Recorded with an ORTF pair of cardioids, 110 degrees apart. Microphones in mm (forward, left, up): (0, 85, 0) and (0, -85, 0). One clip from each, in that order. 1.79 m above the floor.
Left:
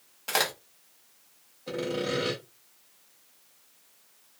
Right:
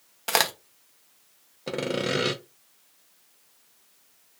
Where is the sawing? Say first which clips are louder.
Right 3 dB; 45° right, 0.7 m.